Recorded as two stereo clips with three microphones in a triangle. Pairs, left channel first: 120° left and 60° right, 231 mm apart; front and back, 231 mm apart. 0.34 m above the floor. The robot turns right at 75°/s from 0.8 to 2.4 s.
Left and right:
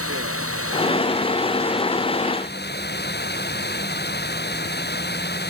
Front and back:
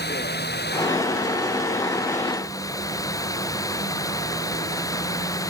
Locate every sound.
0.0 s running water: 45° right; by 5.5 s 75° left